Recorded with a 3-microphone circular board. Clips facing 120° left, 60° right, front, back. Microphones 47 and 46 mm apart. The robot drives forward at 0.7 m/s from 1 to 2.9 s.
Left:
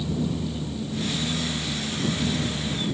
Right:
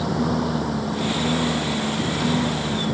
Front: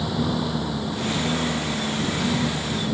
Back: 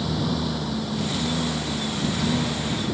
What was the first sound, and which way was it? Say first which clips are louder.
A lawn mower: right 6 dB, front 1 dB; 80° right.